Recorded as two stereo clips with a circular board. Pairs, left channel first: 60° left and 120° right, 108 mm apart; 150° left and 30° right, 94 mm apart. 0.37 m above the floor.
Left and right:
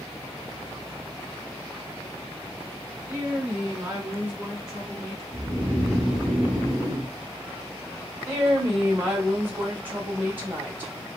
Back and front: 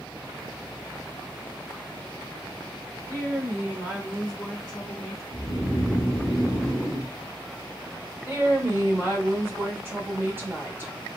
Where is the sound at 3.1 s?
60° right, 1.2 m; by 5.2 s 150° left, 1.2 m.